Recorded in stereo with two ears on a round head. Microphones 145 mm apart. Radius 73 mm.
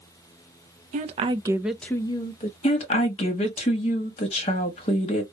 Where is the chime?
I don't hear a chime.